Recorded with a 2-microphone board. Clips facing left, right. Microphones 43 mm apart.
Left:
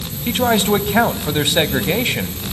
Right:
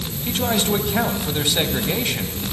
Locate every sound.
0.3 s a man speaking: 30° left (ahead or behind), 1.4 m